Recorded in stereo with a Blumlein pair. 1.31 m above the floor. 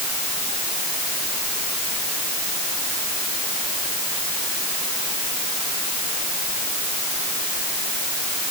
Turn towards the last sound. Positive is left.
No sound to turn to.